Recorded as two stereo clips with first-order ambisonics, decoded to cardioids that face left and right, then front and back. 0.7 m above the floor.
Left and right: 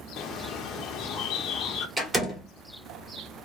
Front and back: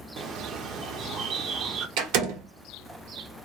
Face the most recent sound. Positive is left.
turn(degrees=-165)